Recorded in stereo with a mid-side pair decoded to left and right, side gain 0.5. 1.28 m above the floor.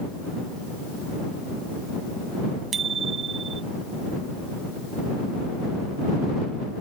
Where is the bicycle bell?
45° right.